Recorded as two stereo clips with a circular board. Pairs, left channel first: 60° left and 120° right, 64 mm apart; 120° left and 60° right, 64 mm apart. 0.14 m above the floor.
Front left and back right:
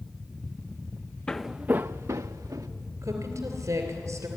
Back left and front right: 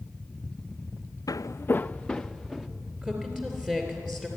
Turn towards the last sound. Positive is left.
turn(degrees=-130)